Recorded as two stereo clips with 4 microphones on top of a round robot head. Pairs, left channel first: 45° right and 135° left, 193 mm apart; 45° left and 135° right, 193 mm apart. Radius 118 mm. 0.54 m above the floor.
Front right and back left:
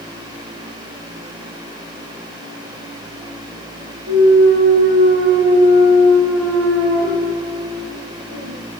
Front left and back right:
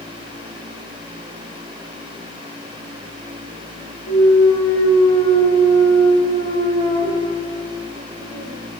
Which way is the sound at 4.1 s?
115° left.